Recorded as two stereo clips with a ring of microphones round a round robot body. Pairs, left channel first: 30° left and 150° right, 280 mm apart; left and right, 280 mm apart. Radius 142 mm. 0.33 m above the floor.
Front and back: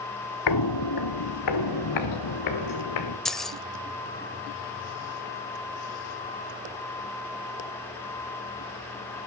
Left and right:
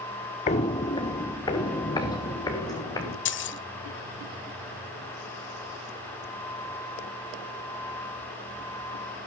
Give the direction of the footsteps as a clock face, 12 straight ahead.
11 o'clock.